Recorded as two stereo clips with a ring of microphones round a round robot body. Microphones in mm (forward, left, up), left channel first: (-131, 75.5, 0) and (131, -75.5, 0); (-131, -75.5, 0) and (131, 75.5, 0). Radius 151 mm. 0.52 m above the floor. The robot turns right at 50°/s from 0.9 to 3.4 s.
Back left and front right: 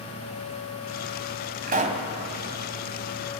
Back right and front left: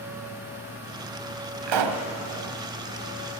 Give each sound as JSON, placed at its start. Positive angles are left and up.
{"t": 1.7, "sound": "a pop", "azimuth_deg": 30, "distance_m": 1.4}